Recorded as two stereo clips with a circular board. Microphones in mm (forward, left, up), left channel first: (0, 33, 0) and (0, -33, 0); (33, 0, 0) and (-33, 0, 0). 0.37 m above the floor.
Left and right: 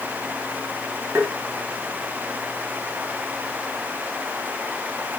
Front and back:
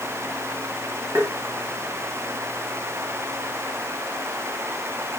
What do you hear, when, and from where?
1.1 s tapping: 140° right, 2.5 m